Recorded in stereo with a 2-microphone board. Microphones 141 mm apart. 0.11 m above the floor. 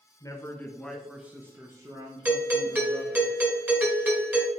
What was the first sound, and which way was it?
A man speaking, 25° left (ahead or behind).